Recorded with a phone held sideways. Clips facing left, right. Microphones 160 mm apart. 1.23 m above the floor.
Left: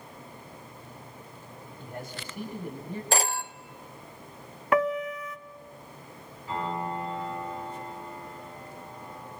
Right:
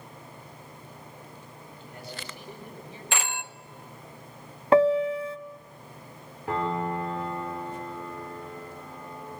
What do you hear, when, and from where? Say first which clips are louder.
1.8 s a man speaking: left 3 dB; 50° left (ahead or behind), 7 m
3.1 s a phone ringing: left 5 dB; 40° left (ahead or behind), 0.7 m
4.7 s a piano: right 6 dB; 30° right (ahead or behind), 0.7 m
6.5 s a piano: right 4 dB; 70° right (ahead or behind), 4.5 m